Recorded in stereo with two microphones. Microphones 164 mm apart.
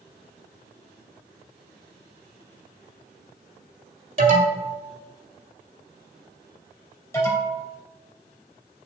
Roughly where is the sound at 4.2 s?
Right.